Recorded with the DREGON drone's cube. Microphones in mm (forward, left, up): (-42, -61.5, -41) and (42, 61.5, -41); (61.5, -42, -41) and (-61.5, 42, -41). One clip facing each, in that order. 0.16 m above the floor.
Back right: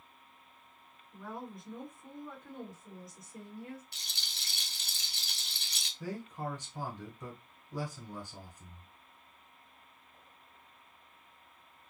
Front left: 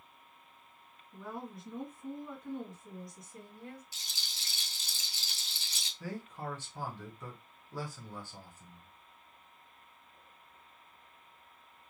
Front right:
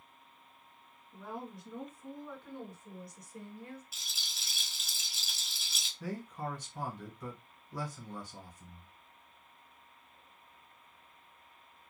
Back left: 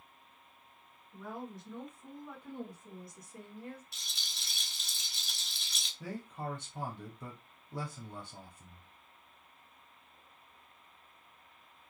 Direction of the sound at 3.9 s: 120° right.